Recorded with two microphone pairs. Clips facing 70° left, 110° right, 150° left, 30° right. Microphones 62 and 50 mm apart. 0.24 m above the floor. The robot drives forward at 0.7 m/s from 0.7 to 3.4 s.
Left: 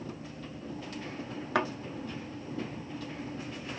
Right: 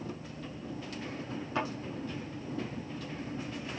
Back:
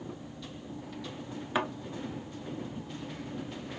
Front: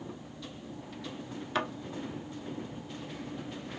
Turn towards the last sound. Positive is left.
turn(degrees=140)